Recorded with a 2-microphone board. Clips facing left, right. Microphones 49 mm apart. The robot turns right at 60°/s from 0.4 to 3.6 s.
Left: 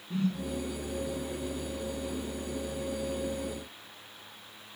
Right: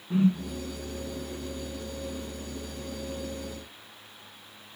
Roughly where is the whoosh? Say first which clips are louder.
Right 7 dB; right.